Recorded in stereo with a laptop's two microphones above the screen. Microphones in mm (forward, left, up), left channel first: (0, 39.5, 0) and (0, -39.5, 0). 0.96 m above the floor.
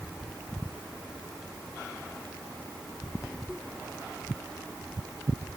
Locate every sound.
Only background noise.